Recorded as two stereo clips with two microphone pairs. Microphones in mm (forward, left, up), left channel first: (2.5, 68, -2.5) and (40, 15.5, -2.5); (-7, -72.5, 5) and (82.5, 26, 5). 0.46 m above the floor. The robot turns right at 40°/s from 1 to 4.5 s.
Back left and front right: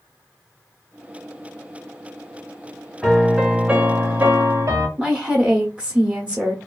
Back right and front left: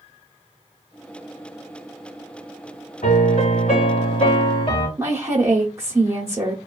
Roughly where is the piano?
Behind right.